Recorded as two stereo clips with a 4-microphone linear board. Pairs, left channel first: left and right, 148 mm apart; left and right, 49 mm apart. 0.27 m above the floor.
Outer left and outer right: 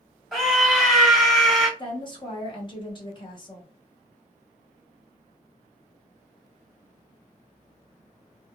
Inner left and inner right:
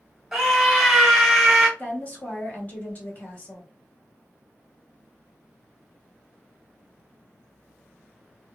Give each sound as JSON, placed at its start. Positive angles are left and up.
{"t": 0.3, "sound": "a scream", "side_deg": 0, "distance_m": 1.4}
{"t": 1.8, "sound": "a woman speaking", "side_deg": 35, "distance_m": 1.0}